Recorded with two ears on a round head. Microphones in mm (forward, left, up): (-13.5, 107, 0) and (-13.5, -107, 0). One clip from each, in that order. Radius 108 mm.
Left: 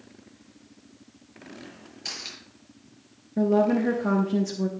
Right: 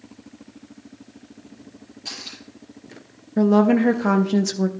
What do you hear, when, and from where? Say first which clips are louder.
2.0 s cutlery clinking: right 1 dB; 40° left (ahead or behind), 6.5 m
3.4 s a woman speaking: right 4 dB; 40° right (ahead or behind), 0.6 m